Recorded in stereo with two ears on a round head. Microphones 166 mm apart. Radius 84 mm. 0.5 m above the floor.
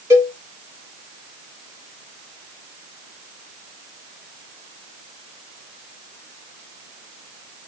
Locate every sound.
0.1 s a cowbell: 15° right (ahead or behind), 1.7 m